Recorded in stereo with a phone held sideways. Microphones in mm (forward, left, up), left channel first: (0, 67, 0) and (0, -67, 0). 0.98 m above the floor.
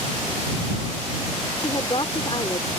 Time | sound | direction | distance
1.6 | a woman speaking | 35° left (ahead or behind) | ?